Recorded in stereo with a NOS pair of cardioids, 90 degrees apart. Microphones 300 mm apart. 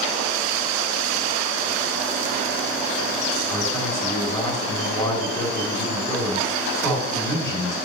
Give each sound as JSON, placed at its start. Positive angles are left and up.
{"t": 3.5, "sound": "a man speaking", "azimuth_deg": 10, "distance_m": 3.5}